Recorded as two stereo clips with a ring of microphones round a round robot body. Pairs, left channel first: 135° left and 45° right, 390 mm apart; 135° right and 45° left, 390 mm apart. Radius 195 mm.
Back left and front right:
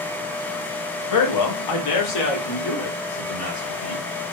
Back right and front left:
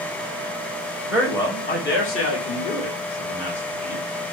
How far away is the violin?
No violin in this recording.